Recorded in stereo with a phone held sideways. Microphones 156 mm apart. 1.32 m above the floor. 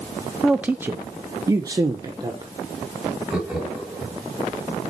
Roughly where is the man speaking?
Centre.